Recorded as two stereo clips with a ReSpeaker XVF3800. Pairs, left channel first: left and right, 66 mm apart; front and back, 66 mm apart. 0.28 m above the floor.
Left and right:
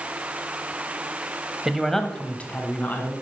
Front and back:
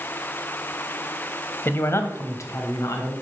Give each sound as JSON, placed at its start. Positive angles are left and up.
{"t": 1.6, "sound": "a man speaking", "azimuth_deg": -15, "distance_m": 1.0}